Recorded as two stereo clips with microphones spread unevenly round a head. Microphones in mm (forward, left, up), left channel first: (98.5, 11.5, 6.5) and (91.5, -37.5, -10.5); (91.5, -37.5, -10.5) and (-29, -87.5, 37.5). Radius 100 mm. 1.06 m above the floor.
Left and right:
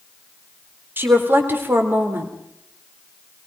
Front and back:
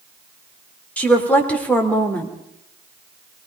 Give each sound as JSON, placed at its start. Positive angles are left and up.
{"t": 1.0, "sound": "a woman speaking", "azimuth_deg": -55, "distance_m": 3.5}